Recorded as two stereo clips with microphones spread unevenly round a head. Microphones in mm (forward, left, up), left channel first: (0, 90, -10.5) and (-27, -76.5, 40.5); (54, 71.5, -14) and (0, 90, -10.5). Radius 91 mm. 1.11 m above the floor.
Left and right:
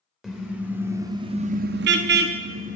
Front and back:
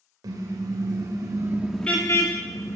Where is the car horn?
175° left, 2.5 m; by 2.8 s 55° right, 1.9 m.